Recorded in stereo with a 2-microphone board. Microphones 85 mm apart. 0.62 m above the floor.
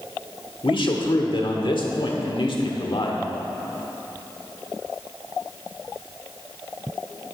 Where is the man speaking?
65° left (ahead or behind), 1.4 m.